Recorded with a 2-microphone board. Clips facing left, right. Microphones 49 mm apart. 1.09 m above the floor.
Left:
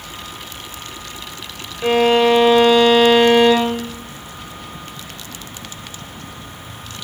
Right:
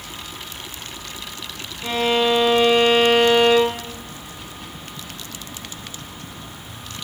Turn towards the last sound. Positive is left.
turn(degrees=75)  # may be behind; listen again after turning